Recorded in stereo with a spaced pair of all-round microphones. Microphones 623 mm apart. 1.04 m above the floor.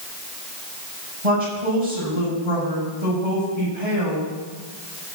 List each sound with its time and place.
1.2 s a woman speaking: 75° right (ahead or behind), 6 m